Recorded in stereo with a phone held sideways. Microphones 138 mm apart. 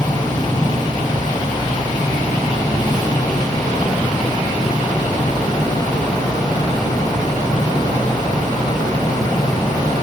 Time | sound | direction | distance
0.0 | a fan | 30° left (ahead or behind) | 6 m